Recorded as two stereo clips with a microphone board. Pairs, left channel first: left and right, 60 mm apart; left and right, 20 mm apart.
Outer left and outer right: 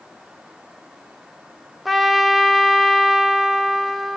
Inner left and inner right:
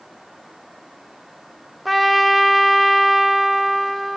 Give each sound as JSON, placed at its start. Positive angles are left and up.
{"t": 1.9, "sound": "a trumpet", "side_deg": 0, "distance_m": 1.5}